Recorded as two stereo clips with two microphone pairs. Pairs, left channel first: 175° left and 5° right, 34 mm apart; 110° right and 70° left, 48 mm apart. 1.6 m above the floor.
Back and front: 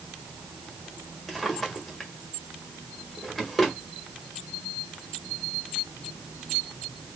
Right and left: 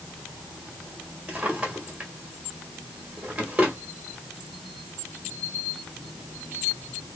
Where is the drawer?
95° left, 1.4 m.